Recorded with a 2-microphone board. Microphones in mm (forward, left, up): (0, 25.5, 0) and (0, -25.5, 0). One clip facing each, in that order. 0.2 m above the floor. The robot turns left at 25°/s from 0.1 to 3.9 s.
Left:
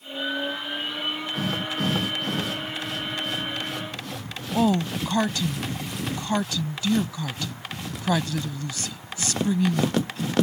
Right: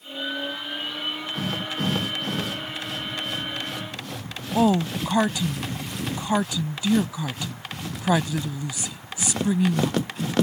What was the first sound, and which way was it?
A woman speaking, 15° right (ahead or behind).